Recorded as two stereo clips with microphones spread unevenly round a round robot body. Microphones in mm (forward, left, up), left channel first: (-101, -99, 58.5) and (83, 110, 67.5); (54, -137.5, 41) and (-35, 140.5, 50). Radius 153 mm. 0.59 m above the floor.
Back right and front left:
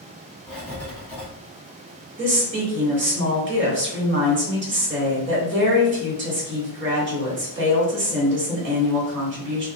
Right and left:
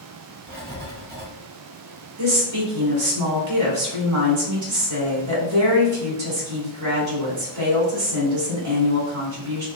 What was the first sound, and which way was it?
Writing, 150° left.